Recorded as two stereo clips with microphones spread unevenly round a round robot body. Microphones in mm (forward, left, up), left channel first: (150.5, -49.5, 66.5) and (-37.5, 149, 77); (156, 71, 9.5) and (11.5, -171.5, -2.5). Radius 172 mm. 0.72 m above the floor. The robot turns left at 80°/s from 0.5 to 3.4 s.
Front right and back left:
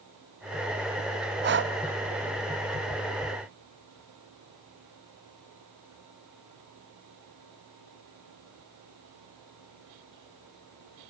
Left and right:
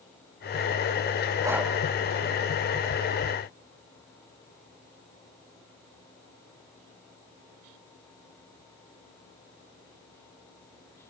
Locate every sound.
1.4 s breathing: 170° left, 1.0 m; by 1.7 s 145° left, 1.0 m